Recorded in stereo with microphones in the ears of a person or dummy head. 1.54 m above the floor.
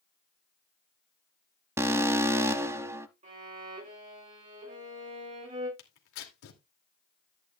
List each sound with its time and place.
1.8 s an alarm: 15° right (ahead or behind), 0.7 m
3.2 s a violin: 35° right (ahead or behind), 5.5 m
5.8 s tearing paper: 80° left, 2.5 m